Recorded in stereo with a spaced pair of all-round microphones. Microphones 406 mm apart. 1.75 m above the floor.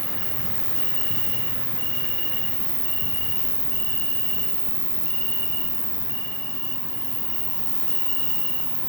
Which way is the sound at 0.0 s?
85° left.